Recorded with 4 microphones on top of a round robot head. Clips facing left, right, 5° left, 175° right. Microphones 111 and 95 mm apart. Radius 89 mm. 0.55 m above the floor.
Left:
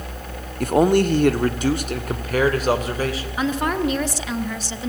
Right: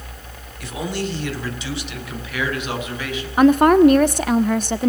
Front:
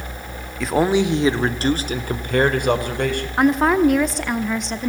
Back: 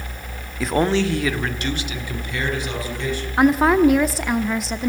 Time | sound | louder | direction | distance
0.6 | a man speaking | left 10 dB, front 1 dB | 100° left | 1.6 m
3.4 | a woman speaking | right 12 dB, back 1 dB | 85° right | 1.3 m